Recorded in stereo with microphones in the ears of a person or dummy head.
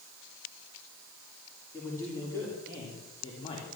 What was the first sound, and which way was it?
A man speaking, 10° left (ahead or behind).